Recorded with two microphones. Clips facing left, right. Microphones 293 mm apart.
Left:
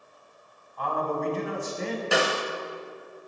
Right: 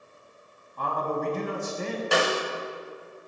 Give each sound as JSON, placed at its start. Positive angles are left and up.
{"t": 0.8, "sound": "a man speaking", "side_deg": -50, "distance_m": 1.8}
{"t": 2.1, "sound": "a snare drum", "side_deg": 0, "distance_m": 0.8}